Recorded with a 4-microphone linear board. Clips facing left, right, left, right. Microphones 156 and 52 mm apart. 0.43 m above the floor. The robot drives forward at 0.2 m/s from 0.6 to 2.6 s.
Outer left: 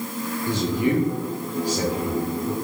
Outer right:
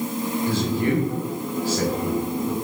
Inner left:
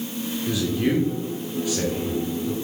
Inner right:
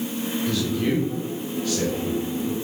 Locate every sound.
0.5 s a man speaking: 15° left (ahead or behind), 0.8 m